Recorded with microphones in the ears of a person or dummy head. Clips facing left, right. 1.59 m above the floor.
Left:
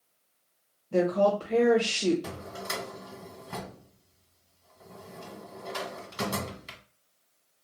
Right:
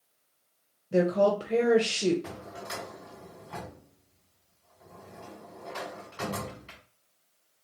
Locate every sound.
0.9 s a woman speaking: 20° right (ahead or behind), 0.8 m
2.2 s a drawer: 45° left (ahead or behind), 1.2 m